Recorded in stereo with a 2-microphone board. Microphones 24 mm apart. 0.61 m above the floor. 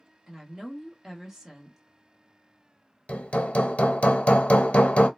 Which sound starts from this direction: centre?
A woman speaking, at 0.3 s.